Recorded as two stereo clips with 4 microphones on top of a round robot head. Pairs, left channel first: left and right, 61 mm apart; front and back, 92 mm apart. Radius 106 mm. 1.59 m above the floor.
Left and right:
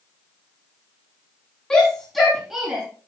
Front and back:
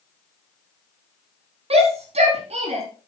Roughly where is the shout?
Behind.